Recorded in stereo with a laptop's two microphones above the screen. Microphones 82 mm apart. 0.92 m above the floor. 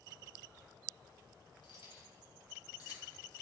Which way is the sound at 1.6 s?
70° left (ahead or behind).